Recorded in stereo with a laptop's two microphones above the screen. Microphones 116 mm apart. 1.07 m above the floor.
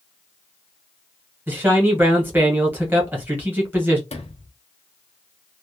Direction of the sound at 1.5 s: 15° right (ahead or behind).